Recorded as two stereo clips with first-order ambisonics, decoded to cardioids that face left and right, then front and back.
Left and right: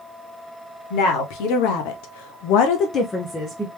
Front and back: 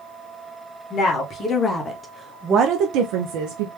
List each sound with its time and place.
0.9 s a woman speaking: 60° left, 1.4 m; by 3.7 s straight behind, 1.0 m